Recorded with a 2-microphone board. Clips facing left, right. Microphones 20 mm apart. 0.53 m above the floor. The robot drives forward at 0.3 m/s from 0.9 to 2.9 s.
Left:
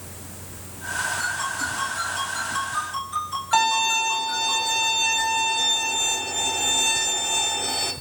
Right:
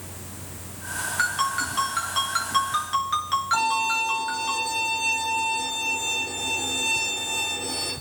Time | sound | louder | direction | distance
1.2 | a ringtone | right 2 dB | 70° right (ahead or behind) | 4 m
3.5 | a violin | left 5 dB | 55° left (ahead or behind) | 3 m